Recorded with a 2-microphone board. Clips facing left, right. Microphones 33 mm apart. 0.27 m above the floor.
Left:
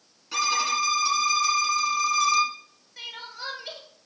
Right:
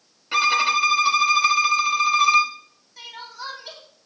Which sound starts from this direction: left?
Crying, at 3.0 s.